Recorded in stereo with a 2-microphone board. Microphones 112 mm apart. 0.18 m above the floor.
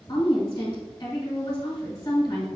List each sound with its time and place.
0.1 s a woman speaking: 35° left (ahead or behind), 1.2 m